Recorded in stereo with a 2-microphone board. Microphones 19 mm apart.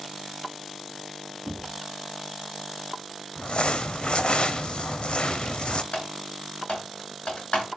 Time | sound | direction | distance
1.4 | knocking | 30° right (ahead or behind) | 4 m
3.4 | crumpling | 65° left (ahead or behind) | 0.8 m
5.9 | typing on a keyboard | 80° left | 3 m